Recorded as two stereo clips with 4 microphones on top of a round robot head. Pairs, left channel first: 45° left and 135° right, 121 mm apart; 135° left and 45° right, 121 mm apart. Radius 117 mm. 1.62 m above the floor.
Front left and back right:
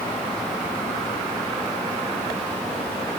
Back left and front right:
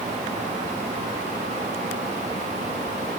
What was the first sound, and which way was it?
Only background noise.